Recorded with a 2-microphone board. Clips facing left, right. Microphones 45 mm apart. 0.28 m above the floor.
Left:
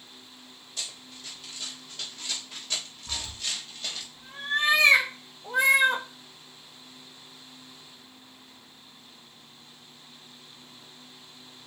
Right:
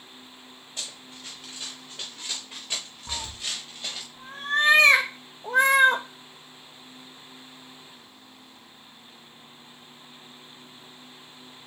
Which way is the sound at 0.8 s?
35° right (ahead or behind).